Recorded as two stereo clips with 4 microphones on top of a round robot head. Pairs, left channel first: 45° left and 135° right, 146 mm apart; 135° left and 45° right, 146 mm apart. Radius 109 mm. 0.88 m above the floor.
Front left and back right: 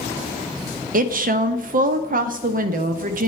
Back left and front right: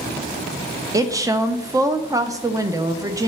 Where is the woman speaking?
115° right, 0.7 m.